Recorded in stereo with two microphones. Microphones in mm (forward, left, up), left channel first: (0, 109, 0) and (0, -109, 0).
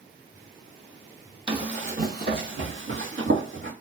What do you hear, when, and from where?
1.5 s running footsteps: 25° right (ahead or behind), 1.0 m; by 3.7 s 65° right (ahead or behind), 1.4 m